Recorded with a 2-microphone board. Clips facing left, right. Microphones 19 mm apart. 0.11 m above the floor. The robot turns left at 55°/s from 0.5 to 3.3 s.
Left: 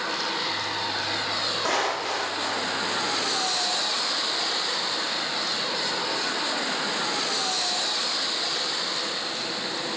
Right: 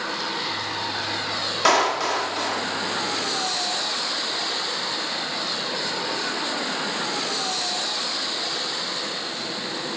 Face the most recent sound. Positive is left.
turn(degrees=-160)